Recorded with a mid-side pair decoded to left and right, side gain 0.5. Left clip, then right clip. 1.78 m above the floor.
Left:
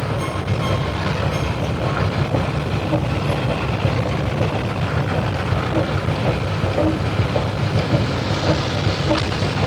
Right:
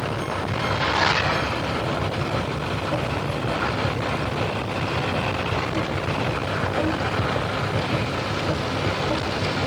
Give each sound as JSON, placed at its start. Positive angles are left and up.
{"t": 0.0, "sound": "a machine running", "azimuth_deg": 45}